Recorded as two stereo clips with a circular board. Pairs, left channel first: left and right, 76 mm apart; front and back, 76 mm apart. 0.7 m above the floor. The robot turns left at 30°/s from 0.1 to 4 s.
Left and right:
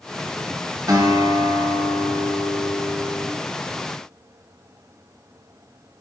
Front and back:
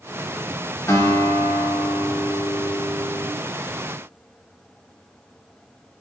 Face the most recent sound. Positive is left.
turn(degrees=-145)